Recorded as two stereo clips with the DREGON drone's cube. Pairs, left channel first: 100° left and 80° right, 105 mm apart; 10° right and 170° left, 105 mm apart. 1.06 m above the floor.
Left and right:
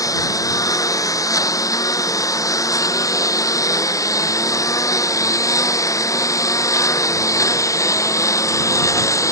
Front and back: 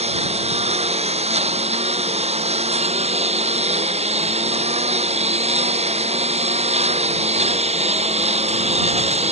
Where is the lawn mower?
160° left.